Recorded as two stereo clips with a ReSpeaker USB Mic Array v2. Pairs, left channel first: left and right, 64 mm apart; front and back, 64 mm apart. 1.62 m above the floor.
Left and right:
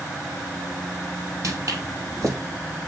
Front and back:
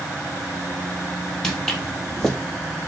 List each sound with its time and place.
1.4 s footsteps: 80° right, 3 m